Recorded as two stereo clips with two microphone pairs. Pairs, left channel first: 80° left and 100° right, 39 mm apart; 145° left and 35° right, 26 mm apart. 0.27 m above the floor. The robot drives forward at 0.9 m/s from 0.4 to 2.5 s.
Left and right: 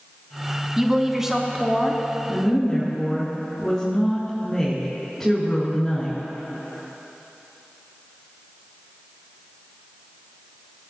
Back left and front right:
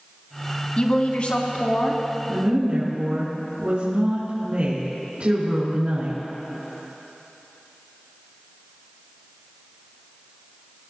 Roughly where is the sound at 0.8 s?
Behind.